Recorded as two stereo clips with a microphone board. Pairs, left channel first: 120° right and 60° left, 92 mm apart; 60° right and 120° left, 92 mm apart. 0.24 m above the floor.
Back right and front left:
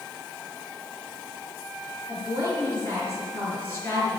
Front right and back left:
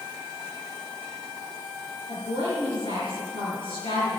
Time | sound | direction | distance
2.1 | a woman speaking | 50° right | 4.5 m